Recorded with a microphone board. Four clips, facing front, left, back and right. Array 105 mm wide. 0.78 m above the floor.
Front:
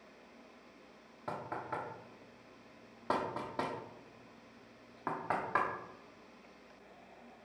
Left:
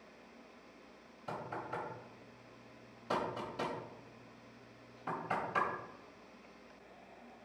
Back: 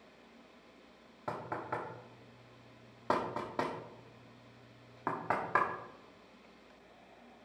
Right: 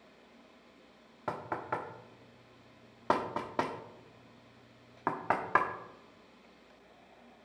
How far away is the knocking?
About 1.3 m.